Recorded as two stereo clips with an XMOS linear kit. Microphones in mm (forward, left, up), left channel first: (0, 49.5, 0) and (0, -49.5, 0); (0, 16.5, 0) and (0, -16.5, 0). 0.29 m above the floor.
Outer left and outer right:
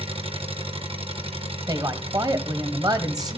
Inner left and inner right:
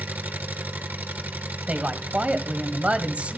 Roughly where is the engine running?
Right.